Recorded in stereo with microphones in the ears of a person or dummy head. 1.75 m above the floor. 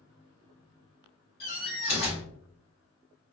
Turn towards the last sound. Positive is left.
turn(degrees=55)  # may be behind; listen again after turning